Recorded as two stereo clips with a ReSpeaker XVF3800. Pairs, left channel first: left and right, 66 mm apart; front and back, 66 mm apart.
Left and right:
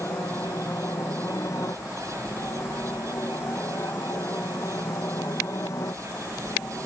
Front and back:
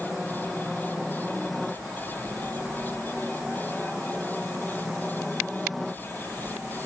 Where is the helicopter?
85° left; by 6.9 s 90° left.